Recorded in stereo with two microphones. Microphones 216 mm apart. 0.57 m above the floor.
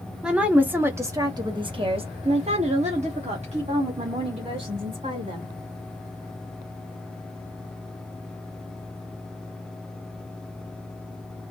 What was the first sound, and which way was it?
A woman speaking, 5° right (ahead or behind).